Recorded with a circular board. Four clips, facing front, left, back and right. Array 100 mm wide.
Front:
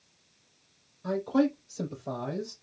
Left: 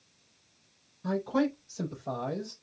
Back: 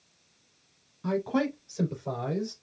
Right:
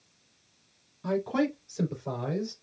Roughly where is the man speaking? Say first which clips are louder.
Right 1 dB, front 2 dB; behind right.